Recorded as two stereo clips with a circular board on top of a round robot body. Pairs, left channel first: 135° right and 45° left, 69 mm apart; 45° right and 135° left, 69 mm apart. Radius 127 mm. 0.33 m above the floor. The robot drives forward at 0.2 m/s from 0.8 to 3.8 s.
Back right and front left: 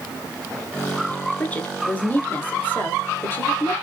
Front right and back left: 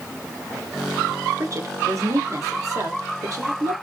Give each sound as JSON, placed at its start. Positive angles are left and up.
{"t": 1.4, "sound": "a woman speaking", "azimuth_deg": 160, "distance_m": 1.2}